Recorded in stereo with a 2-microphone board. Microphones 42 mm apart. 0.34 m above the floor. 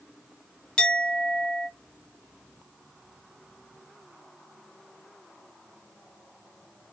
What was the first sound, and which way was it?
A clink, 20° left (ahead or behind).